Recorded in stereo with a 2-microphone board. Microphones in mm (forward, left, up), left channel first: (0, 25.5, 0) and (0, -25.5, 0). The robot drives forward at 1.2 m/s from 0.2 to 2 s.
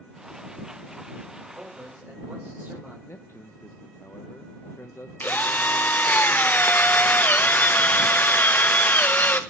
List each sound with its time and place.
1.6 s a man speaking: 35° right (ahead or behind), 4.5 m
3.1 s a man speaking: 55° left (ahead or behind), 0.6 m
5.2 s a drill: 35° left (ahead or behind), 0.9 m